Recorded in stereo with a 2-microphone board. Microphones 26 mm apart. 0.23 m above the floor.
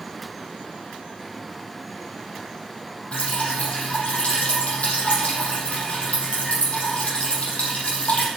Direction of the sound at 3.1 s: 55° left (ahead or behind).